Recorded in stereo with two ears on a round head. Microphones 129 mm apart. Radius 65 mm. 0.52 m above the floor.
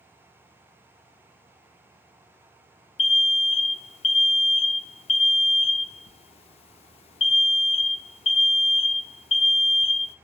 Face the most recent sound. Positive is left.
turn(degrees=40)  # may be behind; listen again after turning